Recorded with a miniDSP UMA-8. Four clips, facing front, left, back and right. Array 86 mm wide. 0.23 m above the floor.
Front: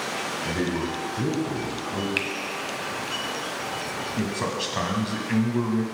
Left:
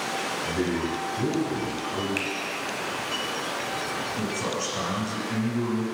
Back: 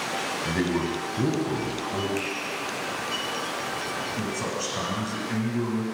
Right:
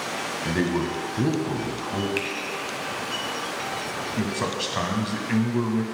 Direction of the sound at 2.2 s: 5° right.